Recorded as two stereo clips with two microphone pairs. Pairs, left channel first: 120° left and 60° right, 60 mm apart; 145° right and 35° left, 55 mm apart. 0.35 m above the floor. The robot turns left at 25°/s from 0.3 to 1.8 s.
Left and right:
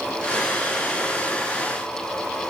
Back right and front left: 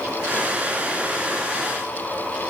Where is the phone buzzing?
I don't hear a phone buzzing.